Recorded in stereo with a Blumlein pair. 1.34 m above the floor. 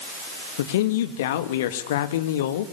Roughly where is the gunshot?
No gunshot in this recording.